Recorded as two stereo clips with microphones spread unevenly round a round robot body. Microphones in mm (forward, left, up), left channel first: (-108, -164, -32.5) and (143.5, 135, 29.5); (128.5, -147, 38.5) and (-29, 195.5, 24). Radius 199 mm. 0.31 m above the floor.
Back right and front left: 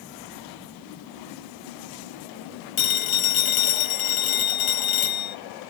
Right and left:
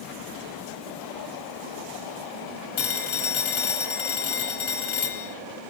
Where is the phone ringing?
135° right, 3.5 m.